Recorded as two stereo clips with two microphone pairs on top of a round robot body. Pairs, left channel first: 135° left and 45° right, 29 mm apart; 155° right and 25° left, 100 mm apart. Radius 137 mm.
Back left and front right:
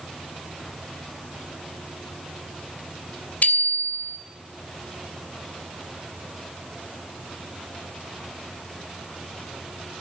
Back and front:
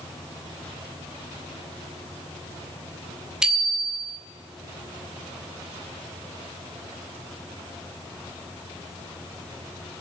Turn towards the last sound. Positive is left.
turn(degrees=110)